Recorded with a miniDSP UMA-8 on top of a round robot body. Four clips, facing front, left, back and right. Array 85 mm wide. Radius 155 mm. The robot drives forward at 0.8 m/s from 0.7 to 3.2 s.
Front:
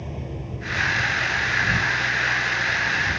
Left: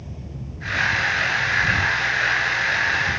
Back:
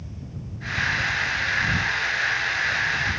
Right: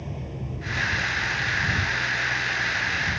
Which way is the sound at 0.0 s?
30° right.